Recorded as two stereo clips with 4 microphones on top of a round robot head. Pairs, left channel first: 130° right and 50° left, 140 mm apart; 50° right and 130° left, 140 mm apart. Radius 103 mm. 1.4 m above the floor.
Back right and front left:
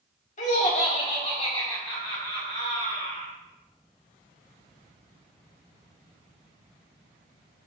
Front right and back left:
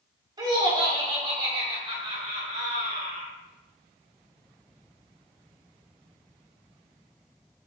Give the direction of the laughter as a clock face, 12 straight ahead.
6 o'clock.